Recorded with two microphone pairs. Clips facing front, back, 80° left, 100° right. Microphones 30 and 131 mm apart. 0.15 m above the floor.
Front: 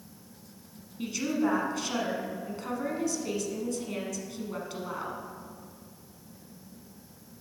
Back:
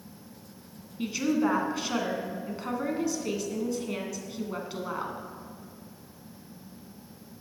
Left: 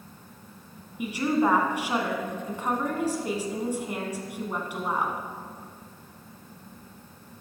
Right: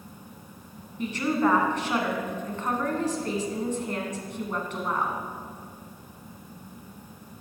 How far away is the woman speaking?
About 1.2 m.